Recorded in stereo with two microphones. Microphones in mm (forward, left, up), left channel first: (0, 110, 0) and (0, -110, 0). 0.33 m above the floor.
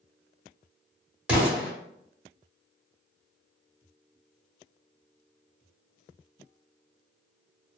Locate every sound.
1.3 s an explosion: 5° right (ahead or behind), 1.4 m